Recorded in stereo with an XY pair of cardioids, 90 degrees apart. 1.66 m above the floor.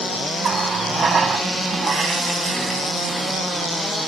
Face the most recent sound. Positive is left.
turn(degrees=-50)